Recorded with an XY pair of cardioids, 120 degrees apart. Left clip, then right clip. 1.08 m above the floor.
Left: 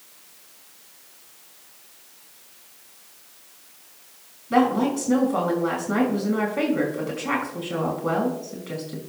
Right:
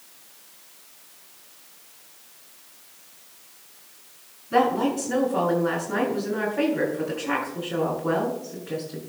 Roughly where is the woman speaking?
Ahead left.